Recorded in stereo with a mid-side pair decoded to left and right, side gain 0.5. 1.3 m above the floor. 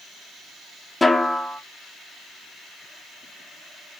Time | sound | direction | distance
1.0 | a snare drum | 15° left | 0.5 m